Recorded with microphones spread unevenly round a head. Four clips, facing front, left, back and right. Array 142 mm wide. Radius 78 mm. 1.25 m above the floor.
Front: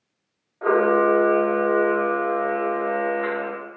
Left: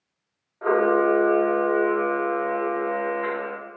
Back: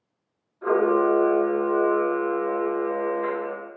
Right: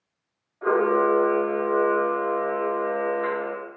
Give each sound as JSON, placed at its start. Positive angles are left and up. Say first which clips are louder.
{"t": 0.6, "sound": "a camera shutter", "louder": "left 1 dB, front 2 dB", "azimuth_deg": 15, "distance_m": 1.5}